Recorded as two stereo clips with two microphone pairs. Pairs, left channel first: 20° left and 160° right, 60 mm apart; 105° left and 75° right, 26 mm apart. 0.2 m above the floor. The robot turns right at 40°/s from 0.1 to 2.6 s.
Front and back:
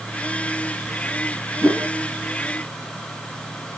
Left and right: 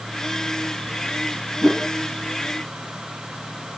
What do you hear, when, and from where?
1.6 s a whoosh: 125° right, 2.5 m; by 1.9 s 115° right, 2.5 m